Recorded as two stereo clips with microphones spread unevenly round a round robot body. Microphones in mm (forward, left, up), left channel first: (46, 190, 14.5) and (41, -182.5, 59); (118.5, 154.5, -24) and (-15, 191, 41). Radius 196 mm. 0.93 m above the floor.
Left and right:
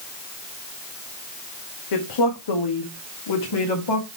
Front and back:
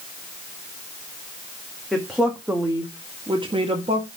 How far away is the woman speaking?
About 1.6 m.